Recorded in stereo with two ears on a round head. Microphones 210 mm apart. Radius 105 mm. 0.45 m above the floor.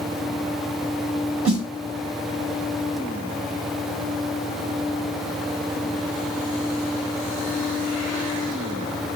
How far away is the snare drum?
About 2.5 m.